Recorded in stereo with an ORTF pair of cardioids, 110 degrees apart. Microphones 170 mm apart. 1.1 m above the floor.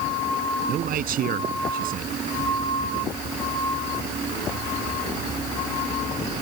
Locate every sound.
0.7 s a man speaking: 60° right